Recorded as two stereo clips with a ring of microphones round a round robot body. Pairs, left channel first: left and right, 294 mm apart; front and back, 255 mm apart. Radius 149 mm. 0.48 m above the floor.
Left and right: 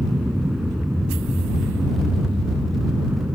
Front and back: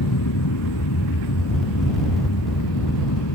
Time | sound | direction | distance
0.0 | an aircraft | straight ahead | ?